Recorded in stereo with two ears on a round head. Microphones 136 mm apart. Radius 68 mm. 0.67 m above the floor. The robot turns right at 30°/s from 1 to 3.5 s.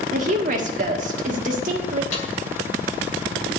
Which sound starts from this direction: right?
A woman speaking, at 0.1 s.